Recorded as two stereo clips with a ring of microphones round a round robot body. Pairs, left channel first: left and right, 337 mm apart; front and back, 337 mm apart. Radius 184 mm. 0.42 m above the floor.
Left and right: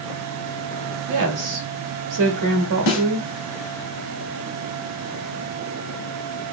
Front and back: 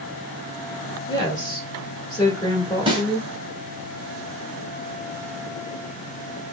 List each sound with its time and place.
1.1 s a woman speaking: 75° right, 1.3 m
2.9 s a snare drum: 105° left, 1.5 m